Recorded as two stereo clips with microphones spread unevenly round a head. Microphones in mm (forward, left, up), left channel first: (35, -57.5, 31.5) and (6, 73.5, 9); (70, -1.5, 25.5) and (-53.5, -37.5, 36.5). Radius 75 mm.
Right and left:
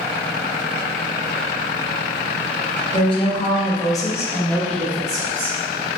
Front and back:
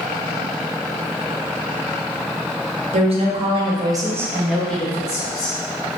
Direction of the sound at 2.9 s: 135° right.